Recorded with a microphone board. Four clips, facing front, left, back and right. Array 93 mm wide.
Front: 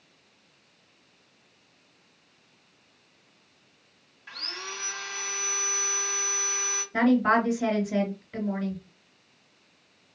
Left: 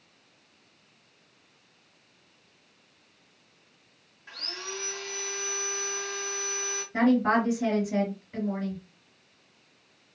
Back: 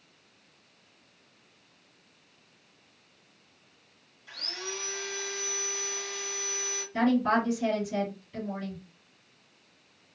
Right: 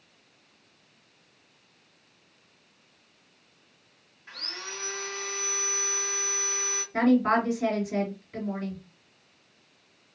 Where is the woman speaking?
15° left, 2 m.